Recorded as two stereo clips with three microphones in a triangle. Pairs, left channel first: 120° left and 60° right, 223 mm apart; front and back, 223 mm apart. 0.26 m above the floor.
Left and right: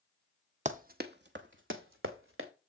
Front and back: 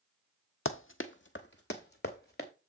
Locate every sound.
0.7 s running footsteps: 10° right, 0.6 m; by 2.5 s 40° right, 1.5 m